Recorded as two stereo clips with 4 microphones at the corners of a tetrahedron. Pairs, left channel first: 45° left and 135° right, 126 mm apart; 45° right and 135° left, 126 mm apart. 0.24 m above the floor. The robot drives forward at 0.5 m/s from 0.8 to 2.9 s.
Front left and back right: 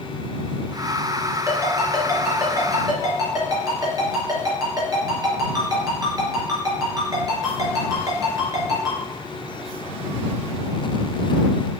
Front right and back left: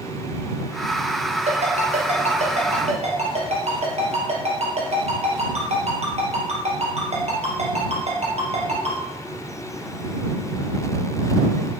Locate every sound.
1.5 s a ringtone: 160° left, 2.5 m; by 9.0 s 165° left, 3 m